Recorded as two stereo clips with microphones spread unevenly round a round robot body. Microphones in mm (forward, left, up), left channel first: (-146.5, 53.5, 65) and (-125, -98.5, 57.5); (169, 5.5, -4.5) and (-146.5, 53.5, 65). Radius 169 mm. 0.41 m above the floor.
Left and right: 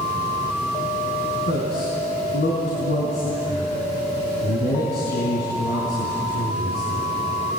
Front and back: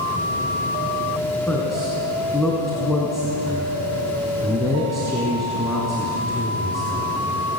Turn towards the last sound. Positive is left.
turn(degrees=80)